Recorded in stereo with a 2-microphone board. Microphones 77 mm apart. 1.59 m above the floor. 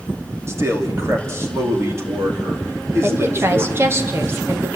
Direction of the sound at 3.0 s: 30° right (ahead or behind).